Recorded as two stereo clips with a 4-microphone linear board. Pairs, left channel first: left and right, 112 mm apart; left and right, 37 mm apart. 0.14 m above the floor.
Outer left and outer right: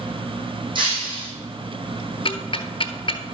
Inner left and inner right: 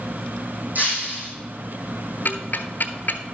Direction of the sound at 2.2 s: 50° left (ahead or behind).